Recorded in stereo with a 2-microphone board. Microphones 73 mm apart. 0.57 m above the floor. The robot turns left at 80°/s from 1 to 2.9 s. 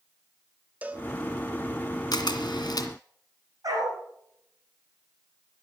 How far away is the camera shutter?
About 1.7 m.